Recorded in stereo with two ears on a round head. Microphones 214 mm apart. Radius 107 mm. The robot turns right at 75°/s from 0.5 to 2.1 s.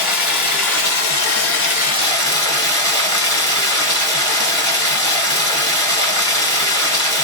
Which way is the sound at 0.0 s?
40° left.